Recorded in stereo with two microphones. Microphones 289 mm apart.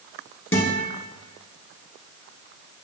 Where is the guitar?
45° left (ahead or behind), 1.7 m.